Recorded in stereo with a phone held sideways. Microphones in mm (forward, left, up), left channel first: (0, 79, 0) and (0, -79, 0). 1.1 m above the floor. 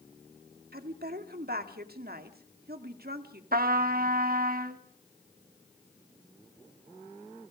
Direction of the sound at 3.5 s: 60° right (ahead or behind).